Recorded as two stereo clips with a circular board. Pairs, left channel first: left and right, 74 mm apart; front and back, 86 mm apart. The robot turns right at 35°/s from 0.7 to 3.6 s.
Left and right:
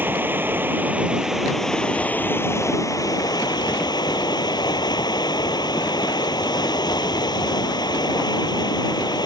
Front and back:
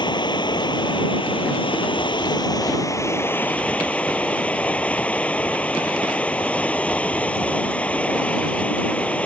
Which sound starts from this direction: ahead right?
Running water, at 0.0 s.